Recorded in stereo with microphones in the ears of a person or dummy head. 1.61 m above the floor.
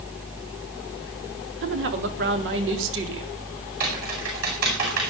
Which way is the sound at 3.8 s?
50° right (ahead or behind).